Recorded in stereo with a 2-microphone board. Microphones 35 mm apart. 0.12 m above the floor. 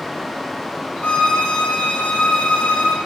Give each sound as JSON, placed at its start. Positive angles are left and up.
{"t": 1.0, "sound": "a violin", "side_deg": 50, "distance_m": 4.5}